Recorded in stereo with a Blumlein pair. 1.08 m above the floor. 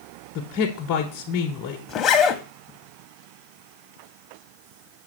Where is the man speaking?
35° left, 1.0 m.